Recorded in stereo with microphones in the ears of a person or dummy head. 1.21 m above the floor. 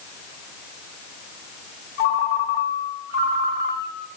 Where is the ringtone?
40° left (ahead or behind), 1.0 m.